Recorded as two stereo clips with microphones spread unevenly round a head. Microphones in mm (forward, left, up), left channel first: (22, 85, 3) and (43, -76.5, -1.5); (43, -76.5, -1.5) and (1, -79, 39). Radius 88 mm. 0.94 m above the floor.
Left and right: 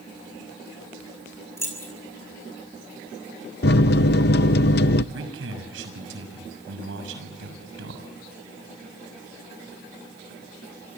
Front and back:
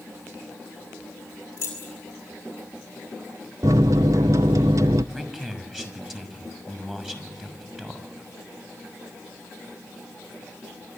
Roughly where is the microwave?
Left.